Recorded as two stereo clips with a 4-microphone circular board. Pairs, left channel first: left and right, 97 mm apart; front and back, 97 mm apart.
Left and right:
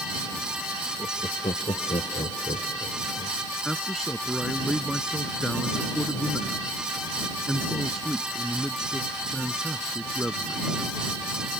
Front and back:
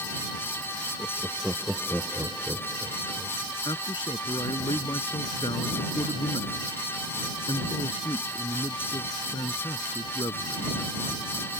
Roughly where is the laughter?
Left.